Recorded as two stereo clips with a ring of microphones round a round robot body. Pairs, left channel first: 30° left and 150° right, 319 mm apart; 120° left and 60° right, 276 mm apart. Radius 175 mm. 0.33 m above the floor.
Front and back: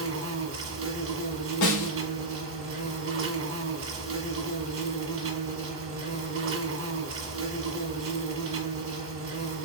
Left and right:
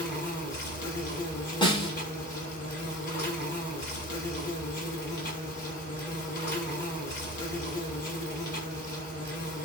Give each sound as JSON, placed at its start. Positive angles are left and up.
{"t": 0.0, "sound": "an insect", "azimuth_deg": 175, "distance_m": 1.7}
{"t": 1.6, "sound": "a snare drum", "azimuth_deg": 50, "distance_m": 2.5}